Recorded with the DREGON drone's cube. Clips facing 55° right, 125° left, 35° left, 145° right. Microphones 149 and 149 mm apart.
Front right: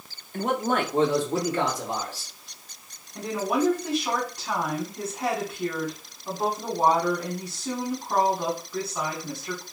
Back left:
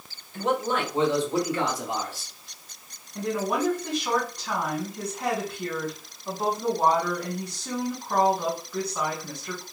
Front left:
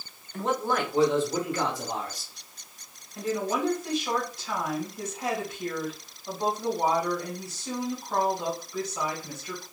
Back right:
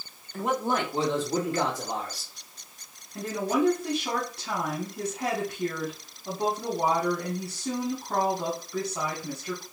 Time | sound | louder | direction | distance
0.3 | a man speaking | front right 1 dB, even | 60° right | 1.0 m
3.1 | a woman speaking | front right 1 dB, back right 2 dB | 140° right | 1.5 m